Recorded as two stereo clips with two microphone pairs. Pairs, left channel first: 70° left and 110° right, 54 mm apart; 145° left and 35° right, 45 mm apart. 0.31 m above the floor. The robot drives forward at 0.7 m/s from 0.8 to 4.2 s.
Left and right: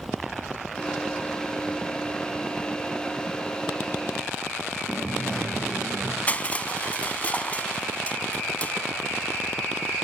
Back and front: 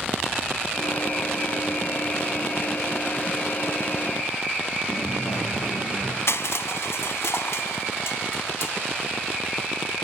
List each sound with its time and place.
4.9 s a dropped coin: 150° left, 4.5 m
6.3 s crushing: 130° left, 0.6 m